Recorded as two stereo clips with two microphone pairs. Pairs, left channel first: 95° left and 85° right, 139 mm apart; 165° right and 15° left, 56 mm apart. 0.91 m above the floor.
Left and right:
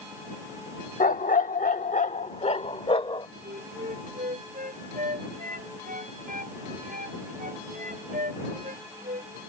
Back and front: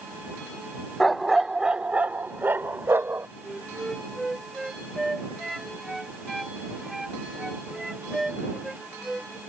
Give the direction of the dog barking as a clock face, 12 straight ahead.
8 o'clock.